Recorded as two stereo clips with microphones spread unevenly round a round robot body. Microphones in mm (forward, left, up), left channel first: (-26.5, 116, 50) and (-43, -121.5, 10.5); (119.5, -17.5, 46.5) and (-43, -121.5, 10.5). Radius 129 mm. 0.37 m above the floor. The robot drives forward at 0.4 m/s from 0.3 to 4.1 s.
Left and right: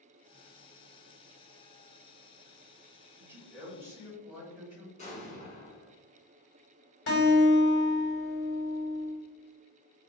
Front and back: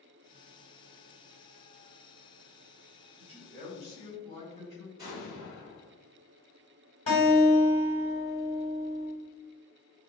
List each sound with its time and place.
3.2 s a man speaking: 150° right, 1.4 m; by 4.9 s 160° right, 1.6 m
5.0 s an explosion: 150° left, 2.0 m
7.1 s a guitar: 95° left, 1.4 m